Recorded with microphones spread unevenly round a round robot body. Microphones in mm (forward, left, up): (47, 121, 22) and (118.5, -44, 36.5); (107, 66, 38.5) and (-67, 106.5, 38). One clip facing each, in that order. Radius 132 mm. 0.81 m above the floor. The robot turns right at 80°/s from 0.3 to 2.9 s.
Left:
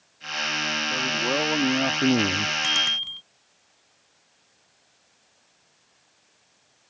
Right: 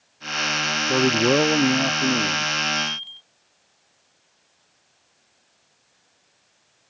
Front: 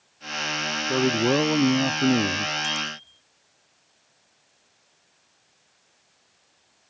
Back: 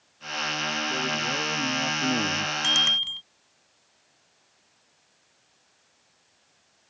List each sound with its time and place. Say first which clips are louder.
0.9 s a man speaking: right 11 dB, front 15 dB; 60° right; by 2.5 s 75° left
2.6 s a bicycle bell: right 5 dB, even; 145° left; by 3.2 s 170° left